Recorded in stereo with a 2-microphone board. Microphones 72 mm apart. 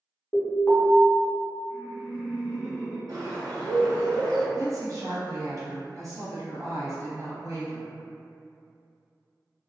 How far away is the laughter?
About 1.3 m.